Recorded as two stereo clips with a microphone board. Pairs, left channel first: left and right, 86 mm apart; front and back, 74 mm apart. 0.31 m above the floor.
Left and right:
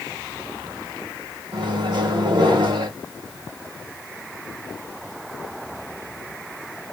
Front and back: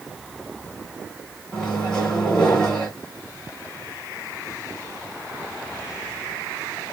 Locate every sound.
1.5 s a microwave: 80° right, 2.5 m